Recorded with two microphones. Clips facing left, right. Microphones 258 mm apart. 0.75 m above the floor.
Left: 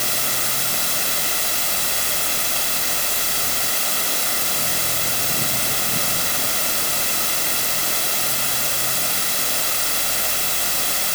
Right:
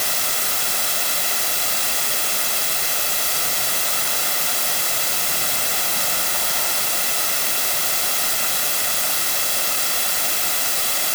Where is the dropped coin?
I don't hear a dropped coin.